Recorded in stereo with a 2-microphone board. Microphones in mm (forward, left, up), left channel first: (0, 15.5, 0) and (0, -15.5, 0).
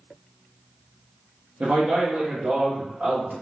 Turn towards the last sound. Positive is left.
turn(degrees=-75)  # may be behind; listen again after turning